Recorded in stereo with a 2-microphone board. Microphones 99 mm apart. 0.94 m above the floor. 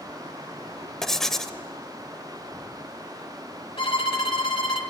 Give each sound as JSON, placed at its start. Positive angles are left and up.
{"t": 1.0, "sound": "writing", "side_deg": 5, "distance_m": 0.7}
{"t": 3.8, "sound": "a violin", "side_deg": 65, "distance_m": 1.6}